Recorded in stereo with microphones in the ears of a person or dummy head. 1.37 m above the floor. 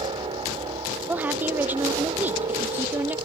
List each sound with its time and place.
0.0 s a helicopter: 25° right (ahead or behind)
1.1 s a woman speaking: 5° right (ahead or behind)